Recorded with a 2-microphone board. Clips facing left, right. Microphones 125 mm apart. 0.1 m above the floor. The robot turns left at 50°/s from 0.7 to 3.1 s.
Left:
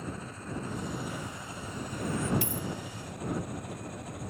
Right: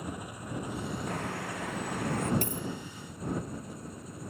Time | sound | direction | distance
0.0 | an engine running | 165° right | ?
1.1 | a bird | 60° right | ?
2.4 | a dropped coin | 50° right (ahead or behind) | ?